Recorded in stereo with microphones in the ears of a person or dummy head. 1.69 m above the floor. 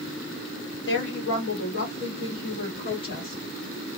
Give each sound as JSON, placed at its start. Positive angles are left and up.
{"t": 0.9, "sound": "a woman speaking", "side_deg": 65, "distance_m": 1.4}